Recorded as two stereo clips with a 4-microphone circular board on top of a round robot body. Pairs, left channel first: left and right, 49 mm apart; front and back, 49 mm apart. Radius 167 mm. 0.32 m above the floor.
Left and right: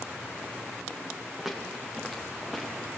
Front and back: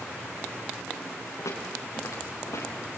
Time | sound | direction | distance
1.4 | footsteps | straight ahead | 6 m